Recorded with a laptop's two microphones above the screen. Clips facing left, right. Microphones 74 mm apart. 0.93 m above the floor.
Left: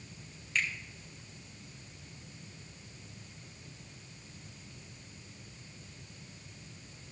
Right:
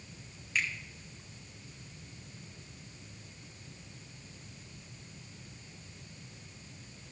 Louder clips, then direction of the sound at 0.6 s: Even; 10° right (ahead or behind).